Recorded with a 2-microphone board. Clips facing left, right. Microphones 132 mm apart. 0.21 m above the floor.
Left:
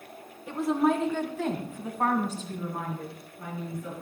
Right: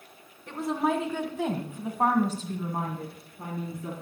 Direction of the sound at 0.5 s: 5° left (ahead or behind).